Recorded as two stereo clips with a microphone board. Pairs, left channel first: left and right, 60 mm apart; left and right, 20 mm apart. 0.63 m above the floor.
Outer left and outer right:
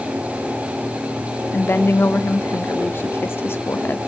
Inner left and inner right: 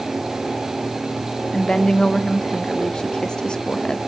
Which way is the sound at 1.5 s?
40° left (ahead or behind).